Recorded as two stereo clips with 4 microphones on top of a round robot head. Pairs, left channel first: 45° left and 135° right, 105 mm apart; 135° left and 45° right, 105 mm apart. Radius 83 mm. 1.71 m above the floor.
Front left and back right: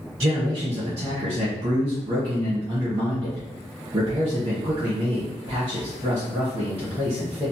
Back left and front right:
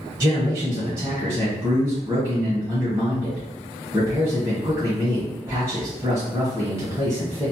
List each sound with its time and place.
0.2 s a man speaking: 105° right, 1.2 m